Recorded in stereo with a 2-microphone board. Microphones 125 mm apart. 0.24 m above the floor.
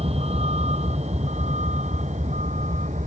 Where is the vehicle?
55° right (ahead or behind); by 3.1 s 75° right (ahead or behind).